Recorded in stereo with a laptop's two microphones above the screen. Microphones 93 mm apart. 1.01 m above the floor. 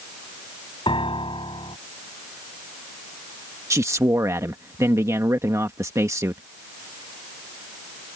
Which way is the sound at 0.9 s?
70° left (ahead or behind).